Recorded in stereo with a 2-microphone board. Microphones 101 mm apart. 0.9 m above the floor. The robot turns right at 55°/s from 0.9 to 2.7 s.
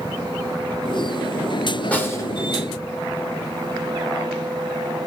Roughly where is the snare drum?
Centre.